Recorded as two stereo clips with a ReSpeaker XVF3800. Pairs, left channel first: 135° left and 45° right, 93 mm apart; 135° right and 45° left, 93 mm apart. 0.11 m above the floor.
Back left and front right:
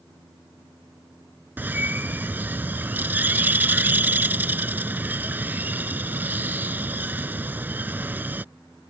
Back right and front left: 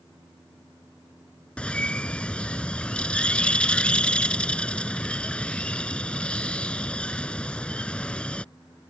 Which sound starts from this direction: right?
A bird, at 1.6 s.